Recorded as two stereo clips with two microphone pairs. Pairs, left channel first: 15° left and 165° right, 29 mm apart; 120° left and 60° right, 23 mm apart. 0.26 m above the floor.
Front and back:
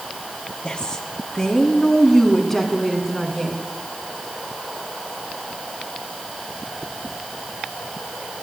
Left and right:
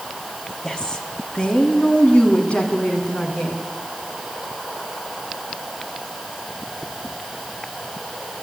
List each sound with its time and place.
0.6 s a woman speaking: 65° left, 2.5 m; by 3.6 s 100° left, 3.5 m